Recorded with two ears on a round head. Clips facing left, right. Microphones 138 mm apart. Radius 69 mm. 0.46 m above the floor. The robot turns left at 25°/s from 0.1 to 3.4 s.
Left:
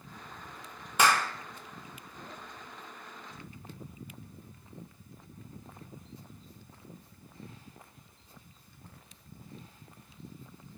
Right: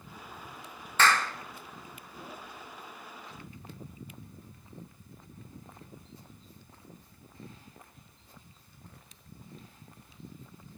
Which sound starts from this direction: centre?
A clap, at 1.0 s.